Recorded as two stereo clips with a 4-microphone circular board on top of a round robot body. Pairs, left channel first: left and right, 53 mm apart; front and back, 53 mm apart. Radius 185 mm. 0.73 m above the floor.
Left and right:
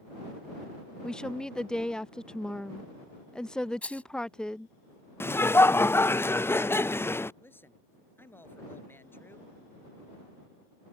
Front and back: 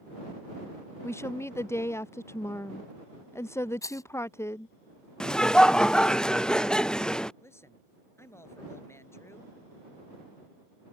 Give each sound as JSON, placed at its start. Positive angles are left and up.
{"t": 1.0, "sound": "a woman speaking", "azimuth_deg": 15}
{"t": 3.8, "sound": "a rattle", "azimuth_deg": 20}
{"t": 5.2, "sound": "laughter", "azimuth_deg": 75}
{"t": 7.4, "sound": "a man speaking", "azimuth_deg": 40}